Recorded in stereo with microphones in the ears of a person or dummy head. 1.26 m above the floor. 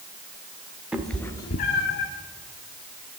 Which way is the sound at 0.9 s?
5° right (ahead or behind).